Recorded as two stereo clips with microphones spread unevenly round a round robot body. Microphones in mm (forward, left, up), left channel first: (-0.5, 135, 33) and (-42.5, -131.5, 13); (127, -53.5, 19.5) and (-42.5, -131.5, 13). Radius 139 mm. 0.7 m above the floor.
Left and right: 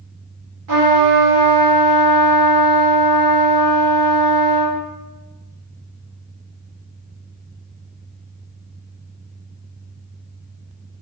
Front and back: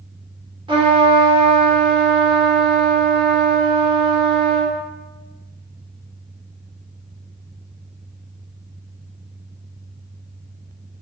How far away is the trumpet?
About 1.1 m.